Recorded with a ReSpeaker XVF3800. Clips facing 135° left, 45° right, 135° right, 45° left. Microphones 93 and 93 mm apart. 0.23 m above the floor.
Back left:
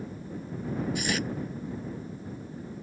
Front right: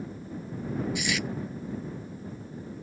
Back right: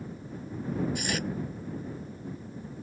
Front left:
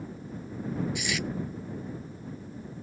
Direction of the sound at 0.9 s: Straight behind.